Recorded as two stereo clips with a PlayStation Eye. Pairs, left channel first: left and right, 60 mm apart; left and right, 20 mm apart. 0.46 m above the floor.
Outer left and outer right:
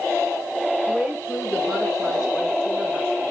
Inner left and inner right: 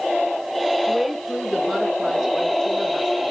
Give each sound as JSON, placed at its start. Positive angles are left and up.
{"t": 0.9, "sound": "a woman speaking", "side_deg": 5, "distance_m": 6.5}